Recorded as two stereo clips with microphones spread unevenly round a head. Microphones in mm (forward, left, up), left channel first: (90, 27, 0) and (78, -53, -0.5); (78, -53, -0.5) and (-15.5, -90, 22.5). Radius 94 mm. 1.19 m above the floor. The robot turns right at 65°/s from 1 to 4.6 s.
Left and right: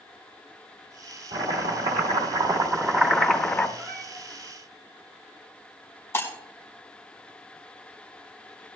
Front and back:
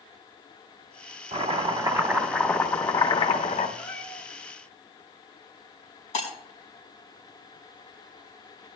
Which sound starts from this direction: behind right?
Chopping, at 1.3 s.